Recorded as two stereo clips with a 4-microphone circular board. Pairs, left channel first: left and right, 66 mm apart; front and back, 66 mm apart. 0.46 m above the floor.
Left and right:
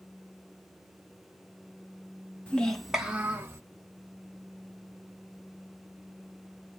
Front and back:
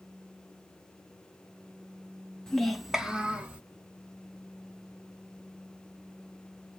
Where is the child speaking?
60° left, 0.7 m; by 3.6 s 125° right, 0.9 m.